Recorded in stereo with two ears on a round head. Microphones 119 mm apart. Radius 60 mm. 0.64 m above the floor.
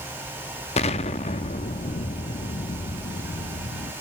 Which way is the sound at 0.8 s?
50° left (ahead or behind).